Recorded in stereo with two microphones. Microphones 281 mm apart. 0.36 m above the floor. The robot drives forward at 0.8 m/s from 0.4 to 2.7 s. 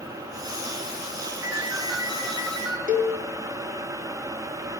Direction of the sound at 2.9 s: 30° right (ahead or behind).